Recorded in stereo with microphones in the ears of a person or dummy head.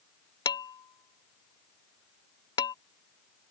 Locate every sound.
0.5 s dishes clattering: 25° left (ahead or behind)